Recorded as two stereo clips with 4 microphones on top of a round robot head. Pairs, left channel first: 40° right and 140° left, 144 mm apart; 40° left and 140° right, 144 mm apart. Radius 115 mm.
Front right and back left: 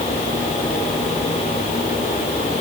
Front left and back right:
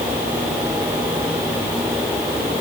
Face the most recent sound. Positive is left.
No sound to turn to.